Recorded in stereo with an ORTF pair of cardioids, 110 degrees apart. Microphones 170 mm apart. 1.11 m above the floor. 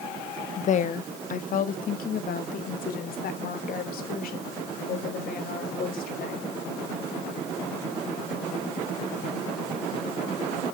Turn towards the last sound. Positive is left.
turn(degrees=60)